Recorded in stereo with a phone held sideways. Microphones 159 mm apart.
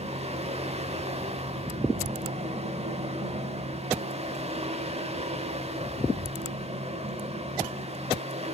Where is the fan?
40° right (ahead or behind), 1.0 m.